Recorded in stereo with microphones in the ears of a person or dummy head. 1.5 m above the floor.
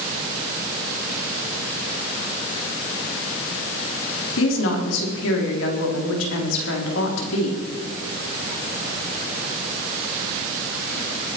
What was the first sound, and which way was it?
A woman speaking, 80° left.